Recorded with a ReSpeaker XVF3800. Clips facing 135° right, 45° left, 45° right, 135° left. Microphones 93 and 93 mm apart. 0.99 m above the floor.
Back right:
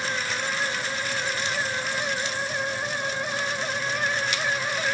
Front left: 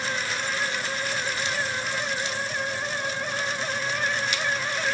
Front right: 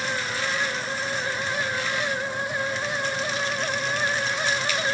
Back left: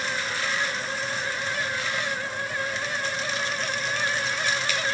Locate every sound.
Only background noise.